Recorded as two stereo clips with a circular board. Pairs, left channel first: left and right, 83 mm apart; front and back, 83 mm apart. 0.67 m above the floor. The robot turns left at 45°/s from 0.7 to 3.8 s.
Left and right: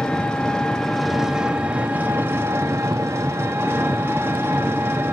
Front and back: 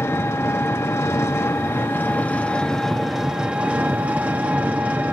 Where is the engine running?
15° left, 0.9 m; by 5.1 s 125° right, 0.9 m.